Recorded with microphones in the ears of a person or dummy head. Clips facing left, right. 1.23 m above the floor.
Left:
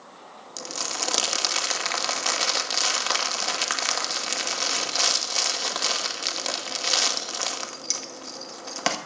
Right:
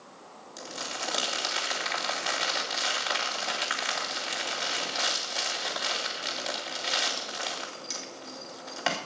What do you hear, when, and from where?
0.6 s crumpling: 60° left (ahead or behind), 2 m